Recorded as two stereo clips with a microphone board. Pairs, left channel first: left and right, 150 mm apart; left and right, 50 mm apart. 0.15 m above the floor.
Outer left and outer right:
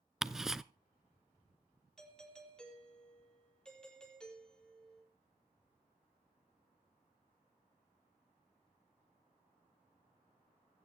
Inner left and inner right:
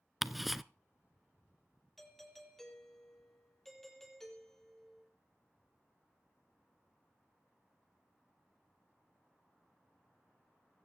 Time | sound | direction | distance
0.2 | ticking | 5° right (ahead or behind) | 0.5 m
2.0 | a doorbell | 5° left (ahead or behind) | 4.5 m